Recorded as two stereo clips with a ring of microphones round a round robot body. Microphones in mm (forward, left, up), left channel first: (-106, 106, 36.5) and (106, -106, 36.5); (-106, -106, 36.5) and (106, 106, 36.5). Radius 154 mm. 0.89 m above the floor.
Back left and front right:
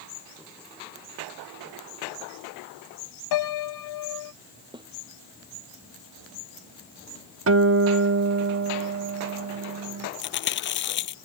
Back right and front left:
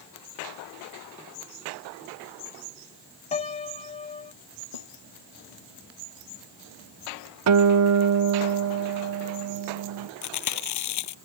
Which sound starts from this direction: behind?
Chewing, at 10.2 s.